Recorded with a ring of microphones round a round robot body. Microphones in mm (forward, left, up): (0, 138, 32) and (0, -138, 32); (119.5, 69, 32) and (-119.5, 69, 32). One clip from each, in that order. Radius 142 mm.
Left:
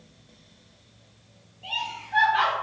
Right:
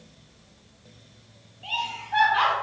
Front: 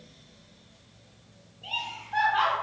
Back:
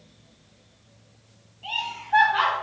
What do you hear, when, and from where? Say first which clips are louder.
1.6 s laughter: right 1 dB, back 4 dB; 175° right, 1.4 m